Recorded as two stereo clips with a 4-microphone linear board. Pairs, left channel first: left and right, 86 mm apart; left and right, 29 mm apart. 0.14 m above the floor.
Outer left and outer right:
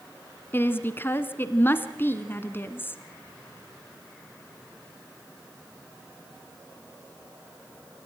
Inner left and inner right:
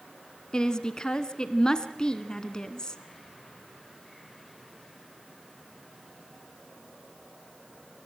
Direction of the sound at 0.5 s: 25° left (ahead or behind).